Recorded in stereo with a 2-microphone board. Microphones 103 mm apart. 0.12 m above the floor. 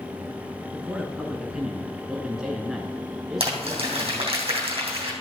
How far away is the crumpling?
About 3.5 m.